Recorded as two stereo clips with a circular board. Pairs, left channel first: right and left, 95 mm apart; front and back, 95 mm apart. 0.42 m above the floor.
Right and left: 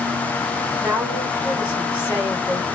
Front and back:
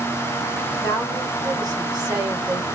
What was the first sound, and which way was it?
A woman speaking, 160° left.